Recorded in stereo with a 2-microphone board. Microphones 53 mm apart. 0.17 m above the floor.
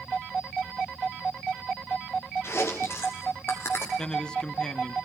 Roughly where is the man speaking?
Centre.